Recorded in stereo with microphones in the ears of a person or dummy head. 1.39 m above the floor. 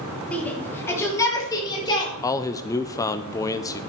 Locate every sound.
0.3 s a shout: 10° left (ahead or behind), 2.5 m; by 2.1 s 25° left (ahead or behind), 4 m
2.2 s a man speaking: 20° left (ahead or behind), 0.6 m